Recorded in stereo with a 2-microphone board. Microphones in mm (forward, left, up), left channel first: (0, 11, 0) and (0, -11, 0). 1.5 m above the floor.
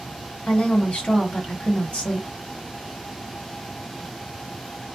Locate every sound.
0.5 s a woman speaking: 60° left (ahead or behind), 1.1 m